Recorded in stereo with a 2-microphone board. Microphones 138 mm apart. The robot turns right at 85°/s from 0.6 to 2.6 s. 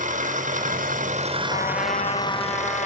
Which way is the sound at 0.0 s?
110° right.